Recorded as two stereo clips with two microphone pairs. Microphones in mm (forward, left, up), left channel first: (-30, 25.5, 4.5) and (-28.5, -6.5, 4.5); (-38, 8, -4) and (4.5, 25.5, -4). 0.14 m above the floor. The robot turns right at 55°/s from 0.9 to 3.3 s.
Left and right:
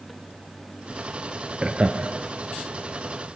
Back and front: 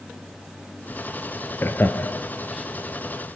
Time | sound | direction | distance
1.6 | laughter | 145° right | 2.5 m